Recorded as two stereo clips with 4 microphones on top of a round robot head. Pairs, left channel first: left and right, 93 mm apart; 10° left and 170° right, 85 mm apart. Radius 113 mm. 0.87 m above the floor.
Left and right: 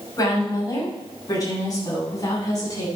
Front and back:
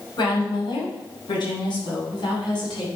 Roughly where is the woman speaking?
Ahead left.